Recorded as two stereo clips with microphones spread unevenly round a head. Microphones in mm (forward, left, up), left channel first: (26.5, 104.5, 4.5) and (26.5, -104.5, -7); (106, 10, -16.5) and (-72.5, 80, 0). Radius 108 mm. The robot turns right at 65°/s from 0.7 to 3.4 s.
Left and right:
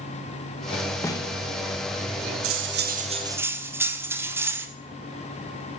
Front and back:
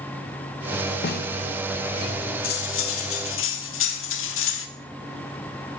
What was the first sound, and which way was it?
A snare drum, 10° left.